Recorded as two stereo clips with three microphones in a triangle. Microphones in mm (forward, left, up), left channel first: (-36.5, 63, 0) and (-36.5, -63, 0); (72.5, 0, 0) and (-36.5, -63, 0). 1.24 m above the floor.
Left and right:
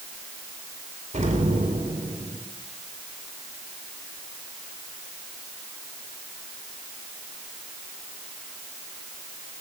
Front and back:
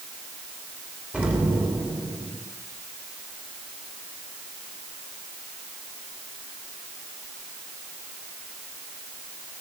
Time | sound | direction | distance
1.1 | an explosion | 70° right | 3 m